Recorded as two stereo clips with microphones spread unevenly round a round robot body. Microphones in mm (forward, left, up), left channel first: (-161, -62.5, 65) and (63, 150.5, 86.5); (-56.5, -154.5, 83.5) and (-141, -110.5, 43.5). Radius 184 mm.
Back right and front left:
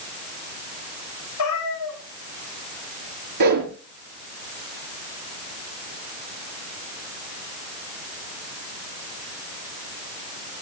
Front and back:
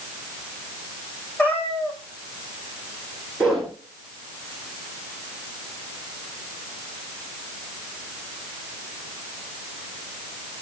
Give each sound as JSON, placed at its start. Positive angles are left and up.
{"t": 1.4, "sound": "a cat meowing", "azimuth_deg": -95, "distance_m": 6.0}
{"t": 3.4, "sound": "a whoosh", "azimuth_deg": 65, "distance_m": 4.5}